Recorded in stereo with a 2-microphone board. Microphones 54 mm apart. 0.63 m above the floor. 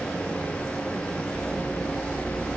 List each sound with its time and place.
Only background noise.